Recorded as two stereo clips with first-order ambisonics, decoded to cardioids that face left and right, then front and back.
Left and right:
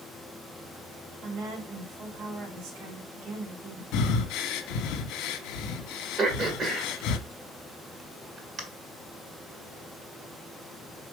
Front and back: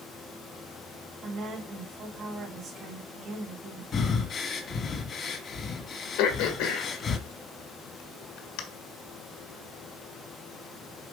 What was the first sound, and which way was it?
A woman speaking, 110° right.